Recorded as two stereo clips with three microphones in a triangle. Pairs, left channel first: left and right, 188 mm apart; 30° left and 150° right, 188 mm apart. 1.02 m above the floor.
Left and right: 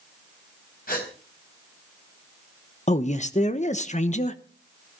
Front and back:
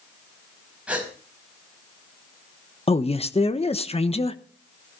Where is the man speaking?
65° left, 1.1 m.